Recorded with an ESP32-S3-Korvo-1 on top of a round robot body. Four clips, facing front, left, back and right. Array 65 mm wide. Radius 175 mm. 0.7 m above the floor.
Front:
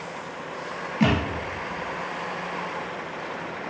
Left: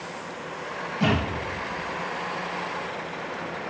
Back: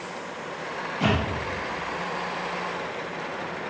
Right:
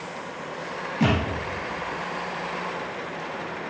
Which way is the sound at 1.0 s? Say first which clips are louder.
Right 1 dB, front 2 dB; 40° right.